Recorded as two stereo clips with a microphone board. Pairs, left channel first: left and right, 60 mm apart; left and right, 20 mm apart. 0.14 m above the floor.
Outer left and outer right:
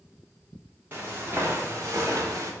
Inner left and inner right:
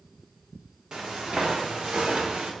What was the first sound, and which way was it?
Footsteps, 40° right (ahead or behind).